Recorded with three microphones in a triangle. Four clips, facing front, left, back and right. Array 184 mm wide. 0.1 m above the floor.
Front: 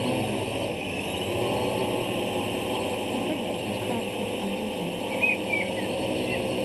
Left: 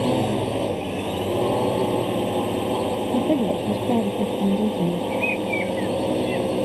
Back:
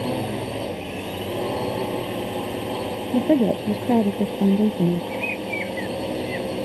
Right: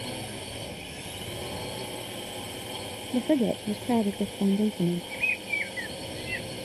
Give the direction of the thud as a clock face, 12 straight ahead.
No thud in this recording.